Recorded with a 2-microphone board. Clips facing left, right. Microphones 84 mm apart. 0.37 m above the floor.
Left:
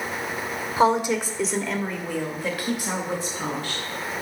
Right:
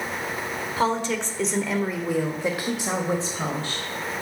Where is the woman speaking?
20° left (ahead or behind), 0.9 m; by 3.9 s 35° right (ahead or behind), 1.6 m.